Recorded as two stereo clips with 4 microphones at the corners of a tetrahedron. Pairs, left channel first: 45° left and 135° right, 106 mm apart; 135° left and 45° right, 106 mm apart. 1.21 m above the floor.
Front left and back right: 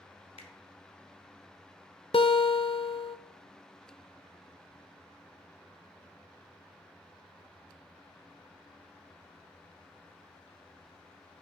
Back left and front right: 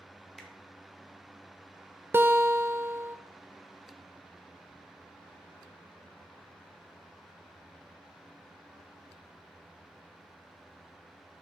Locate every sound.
0.4 s a finger snap: 45° left, 1.0 m
2.1 s a guitar: 20° left, 0.5 m